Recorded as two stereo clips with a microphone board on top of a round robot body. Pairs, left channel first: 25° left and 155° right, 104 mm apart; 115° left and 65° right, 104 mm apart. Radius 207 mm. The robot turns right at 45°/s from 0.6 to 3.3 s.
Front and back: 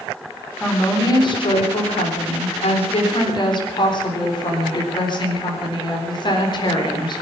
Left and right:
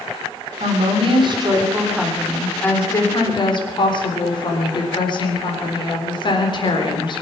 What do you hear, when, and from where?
0.6 s a woman speaking: 55° right, 4 m; by 7.2 s 70° left, 4 m